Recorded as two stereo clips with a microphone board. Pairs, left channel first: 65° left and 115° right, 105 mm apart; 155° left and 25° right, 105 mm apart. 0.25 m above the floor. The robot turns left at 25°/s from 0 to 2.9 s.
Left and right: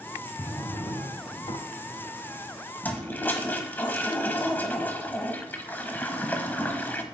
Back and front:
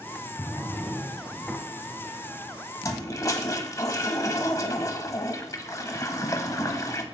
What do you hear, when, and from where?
0.4 s a drawer: 100° left, 0.8 m; by 1.6 s 70° left, 0.8 m
2.8 s a toilet flushing: 130° left, 0.9 m; by 7.0 s 125° left, 0.9 m